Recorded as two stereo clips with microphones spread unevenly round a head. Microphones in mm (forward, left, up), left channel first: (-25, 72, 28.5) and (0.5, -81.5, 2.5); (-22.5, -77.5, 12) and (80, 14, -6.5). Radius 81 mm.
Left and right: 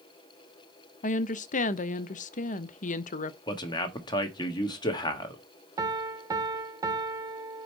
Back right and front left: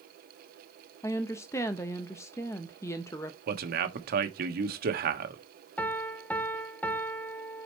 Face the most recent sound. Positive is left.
turn(degrees=-55)